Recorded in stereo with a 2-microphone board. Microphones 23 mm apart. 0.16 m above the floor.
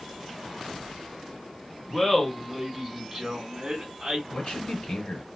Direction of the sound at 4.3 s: 55° left (ahead or behind).